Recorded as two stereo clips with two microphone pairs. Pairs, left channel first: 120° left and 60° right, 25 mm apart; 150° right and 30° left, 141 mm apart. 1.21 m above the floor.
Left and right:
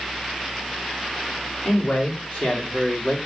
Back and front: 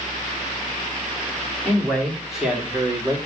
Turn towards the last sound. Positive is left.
turn(degrees=90)